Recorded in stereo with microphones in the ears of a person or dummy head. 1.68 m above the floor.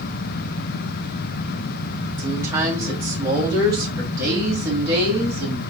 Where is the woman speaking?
15° right (ahead or behind), 1.1 m; by 5.6 s 20° right (ahead or behind), 3 m.